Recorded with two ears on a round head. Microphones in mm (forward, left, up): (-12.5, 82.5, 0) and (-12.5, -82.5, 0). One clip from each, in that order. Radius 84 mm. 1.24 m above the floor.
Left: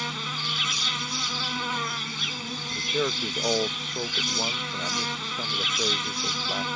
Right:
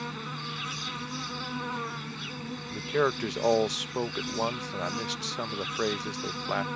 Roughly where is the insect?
Left.